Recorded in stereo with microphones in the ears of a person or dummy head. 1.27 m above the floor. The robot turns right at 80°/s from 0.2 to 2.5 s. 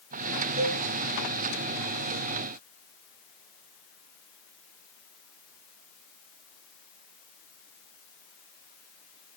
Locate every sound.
0.6 s a cowbell: 30° right (ahead or behind), 0.9 m; by 0.8 s 50° right (ahead or behind), 0.9 m